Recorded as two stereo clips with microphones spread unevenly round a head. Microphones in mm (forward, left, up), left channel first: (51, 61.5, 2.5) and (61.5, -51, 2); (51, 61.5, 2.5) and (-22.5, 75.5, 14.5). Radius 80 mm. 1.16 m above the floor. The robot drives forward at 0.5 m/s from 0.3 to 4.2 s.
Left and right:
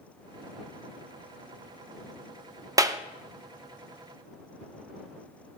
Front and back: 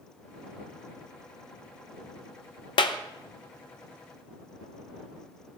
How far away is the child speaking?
I don't hear a child speaking.